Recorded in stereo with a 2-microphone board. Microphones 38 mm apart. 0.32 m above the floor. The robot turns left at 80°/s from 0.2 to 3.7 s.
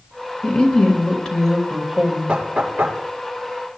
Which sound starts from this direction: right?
Knocking, at 2.3 s.